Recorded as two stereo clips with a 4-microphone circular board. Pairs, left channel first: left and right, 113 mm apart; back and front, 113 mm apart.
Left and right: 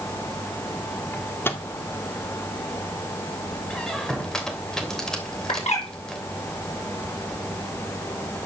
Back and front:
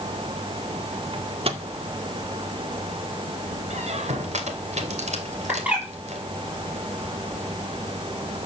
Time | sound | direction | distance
1.1 | a microwave | 20° left | 1.6 m
3.7 | a squeak | 5° left | 2.5 m
5.5 | a bird | 75° left | 7.5 m